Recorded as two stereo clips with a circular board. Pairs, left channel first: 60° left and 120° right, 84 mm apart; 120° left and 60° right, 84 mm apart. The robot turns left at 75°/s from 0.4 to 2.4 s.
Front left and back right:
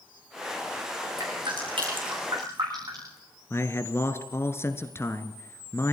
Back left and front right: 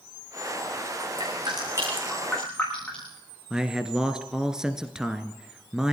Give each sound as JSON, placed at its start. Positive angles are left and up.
{"t": 1.2, "sound": "dripping", "azimuth_deg": -70, "distance_m": 9.5}
{"t": 3.5, "sound": "a man speaking", "azimuth_deg": 20, "distance_m": 1.4}